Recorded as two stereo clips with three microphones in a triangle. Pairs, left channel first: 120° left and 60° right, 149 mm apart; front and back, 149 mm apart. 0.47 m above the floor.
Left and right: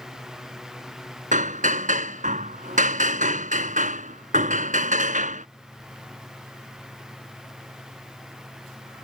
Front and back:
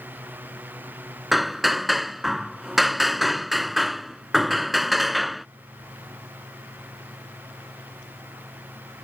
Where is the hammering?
90° right.